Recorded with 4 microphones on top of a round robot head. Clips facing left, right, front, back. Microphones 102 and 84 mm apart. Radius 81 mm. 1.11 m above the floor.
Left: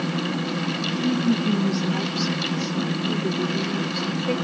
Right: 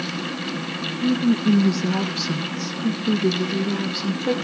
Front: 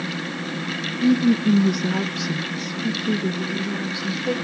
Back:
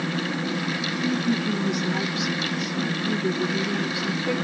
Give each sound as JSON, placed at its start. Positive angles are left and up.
{"t": 1.0, "sound": "a woman speaking", "azimuth_deg": -20, "distance_m": 1.2}